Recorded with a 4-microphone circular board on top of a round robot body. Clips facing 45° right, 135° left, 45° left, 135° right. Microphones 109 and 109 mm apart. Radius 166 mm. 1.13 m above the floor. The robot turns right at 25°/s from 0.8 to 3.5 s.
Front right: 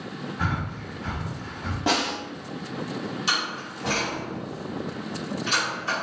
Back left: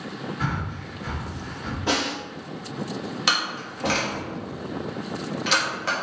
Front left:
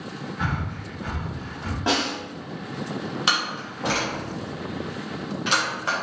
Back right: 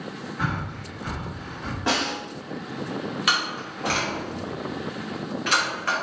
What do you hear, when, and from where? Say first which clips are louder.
0.4 s breathing: front right 2 dB, even; 50° right, 1.0 m; by 1.8 s 25° right, 1.0 m
1.9 s a snare drum: front right 1 dB, front left 1 dB; 25° right, 1.6 m; by 2.1 s 20° right, 1.6 m
3.3 s a door slam: back left 2 dB, front left 1 dB; 110° left, 1.2 m; by 5.9 s 115° left, 1.2 m